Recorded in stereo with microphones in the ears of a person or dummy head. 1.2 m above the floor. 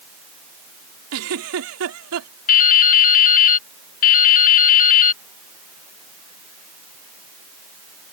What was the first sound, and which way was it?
A giggle, 85° right.